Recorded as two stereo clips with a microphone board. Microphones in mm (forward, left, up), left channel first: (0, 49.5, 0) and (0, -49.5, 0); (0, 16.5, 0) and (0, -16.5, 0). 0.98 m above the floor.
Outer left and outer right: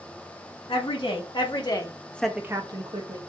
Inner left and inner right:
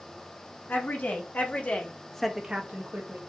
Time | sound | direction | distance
0.7 | a woman speaking | 65° left (ahead or behind) | 3 m